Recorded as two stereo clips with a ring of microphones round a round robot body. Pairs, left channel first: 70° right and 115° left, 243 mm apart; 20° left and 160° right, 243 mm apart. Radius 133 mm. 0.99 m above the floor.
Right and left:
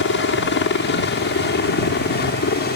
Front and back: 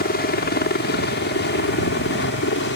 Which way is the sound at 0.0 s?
25° right.